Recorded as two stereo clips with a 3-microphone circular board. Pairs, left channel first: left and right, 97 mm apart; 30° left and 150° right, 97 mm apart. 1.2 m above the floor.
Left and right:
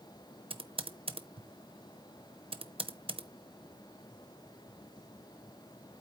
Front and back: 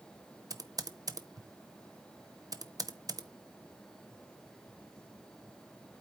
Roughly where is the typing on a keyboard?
Right.